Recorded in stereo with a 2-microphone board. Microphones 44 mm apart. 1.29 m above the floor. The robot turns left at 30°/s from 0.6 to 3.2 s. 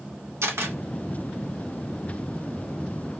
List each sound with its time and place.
0.4 s a camera shutter: 75° right (ahead or behind), 0.9 m; by 0.8 s 70° right (ahead or behind), 0.9 m